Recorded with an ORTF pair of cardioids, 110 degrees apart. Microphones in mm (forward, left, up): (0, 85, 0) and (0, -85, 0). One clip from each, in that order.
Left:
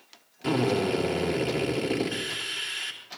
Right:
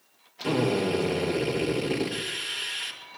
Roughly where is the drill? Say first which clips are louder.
Even; ahead.